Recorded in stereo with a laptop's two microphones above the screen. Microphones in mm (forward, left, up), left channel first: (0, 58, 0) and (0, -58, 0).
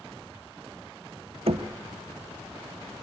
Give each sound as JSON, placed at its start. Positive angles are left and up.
{"t": 1.5, "sound": "knocking", "side_deg": -70, "distance_m": 0.9}